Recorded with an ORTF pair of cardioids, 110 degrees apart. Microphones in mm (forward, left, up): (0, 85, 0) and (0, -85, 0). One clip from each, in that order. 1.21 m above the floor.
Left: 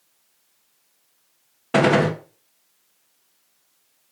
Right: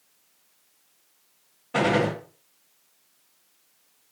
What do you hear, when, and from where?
1.7 s a gunshot: 65° left, 0.7 m